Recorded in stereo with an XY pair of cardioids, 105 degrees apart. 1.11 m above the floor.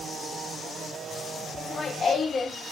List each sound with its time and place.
1.6 s laughter: 40° left, 2 m